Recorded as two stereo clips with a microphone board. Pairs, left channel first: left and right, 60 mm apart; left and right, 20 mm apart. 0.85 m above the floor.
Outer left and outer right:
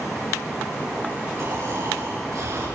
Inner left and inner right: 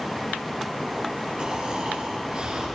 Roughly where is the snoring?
Right.